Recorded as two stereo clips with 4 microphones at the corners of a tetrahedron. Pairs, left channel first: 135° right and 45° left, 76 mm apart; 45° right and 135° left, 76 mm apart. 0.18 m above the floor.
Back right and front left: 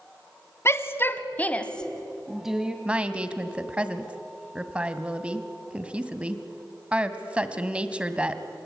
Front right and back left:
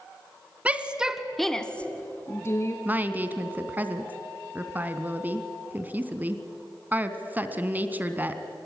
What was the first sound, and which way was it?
A shout, 165° right.